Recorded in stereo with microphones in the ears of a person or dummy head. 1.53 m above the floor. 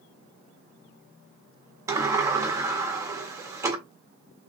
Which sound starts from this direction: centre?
A sliding door, at 1.9 s.